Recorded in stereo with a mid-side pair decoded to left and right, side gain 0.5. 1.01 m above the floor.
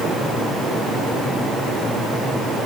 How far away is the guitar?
I don't hear a guitar.